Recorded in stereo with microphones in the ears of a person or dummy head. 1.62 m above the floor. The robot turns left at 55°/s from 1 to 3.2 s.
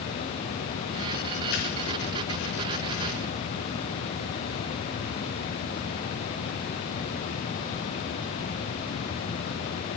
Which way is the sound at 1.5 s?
50° left (ahead or behind).